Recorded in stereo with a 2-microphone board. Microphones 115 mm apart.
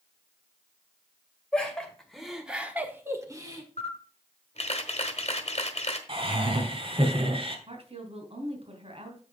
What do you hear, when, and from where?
1.5 s laughter: 10° left (ahead or behind), 2.5 m; by 3.6 s 30° right (ahead or behind), 1.4 m
3.8 s a camera shutter: 60° left (ahead or behind), 1.2 m
6.1 s laughter: 50° right (ahead or behind), 2.5 m
7.7 s a woman speaking: 55° right (ahead or behind), 2.5 m